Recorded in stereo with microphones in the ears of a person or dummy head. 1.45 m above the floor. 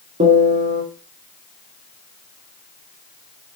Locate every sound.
0.2 s a piano: 35° right (ahead or behind), 2.5 m